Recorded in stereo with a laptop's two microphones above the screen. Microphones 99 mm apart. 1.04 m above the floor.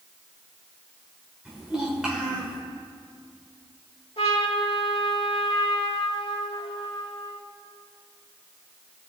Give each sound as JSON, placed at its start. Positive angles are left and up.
{"t": 1.4, "sound": "a child speaking", "side_deg": -5, "distance_m": 2.5}
{"t": 4.2, "sound": "a trumpet", "side_deg": 75, "distance_m": 1.6}